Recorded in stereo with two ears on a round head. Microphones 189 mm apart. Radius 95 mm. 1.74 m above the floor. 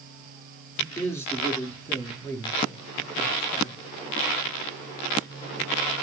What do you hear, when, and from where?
0.8 s a man speaking: 10° left (ahead or behind), 4.5 m; by 3.8 s 20° left (ahead or behind), 2.5 m